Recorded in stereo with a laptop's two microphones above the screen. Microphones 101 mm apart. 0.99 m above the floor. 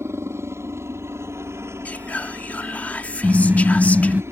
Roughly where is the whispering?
Centre.